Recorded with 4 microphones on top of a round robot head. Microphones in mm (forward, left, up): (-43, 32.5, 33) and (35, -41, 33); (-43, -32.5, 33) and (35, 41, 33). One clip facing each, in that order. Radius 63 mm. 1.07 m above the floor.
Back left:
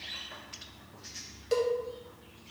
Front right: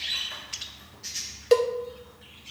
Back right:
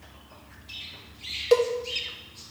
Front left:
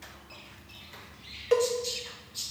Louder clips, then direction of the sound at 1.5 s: Front right 7 dB, back right 4 dB; 70° right.